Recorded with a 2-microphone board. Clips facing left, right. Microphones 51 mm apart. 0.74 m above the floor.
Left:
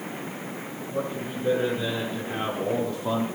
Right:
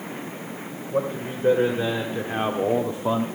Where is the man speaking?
45° right (ahead or behind), 2.5 m; by 3.3 s 15° right (ahead or behind), 1.0 m.